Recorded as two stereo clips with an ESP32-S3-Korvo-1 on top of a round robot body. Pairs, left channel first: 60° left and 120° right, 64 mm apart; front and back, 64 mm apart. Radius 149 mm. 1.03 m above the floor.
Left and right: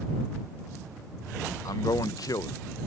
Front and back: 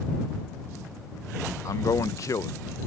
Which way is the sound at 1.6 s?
35° left.